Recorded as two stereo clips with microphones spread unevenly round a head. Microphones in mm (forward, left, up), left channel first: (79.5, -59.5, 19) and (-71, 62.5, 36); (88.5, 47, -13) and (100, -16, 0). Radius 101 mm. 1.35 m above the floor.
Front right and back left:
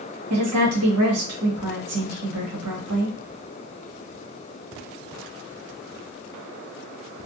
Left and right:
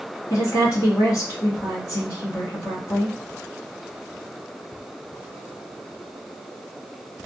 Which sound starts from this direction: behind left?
A woman speaking, at 0.3 s.